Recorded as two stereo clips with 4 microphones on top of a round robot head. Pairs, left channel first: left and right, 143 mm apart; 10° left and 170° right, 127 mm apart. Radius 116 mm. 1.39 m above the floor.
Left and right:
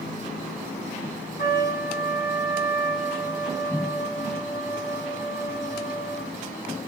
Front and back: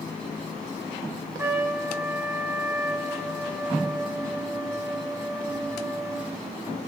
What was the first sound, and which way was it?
A trumpet, 125° left.